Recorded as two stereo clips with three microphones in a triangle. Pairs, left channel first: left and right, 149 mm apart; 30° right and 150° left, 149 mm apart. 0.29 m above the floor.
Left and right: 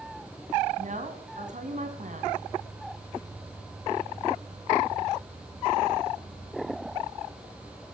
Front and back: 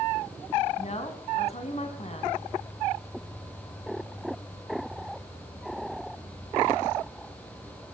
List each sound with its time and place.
0.8 s a woman speaking: 65° right, 2.5 m